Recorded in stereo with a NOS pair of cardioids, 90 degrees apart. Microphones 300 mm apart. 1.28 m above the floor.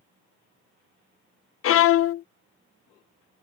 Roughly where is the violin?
Ahead left.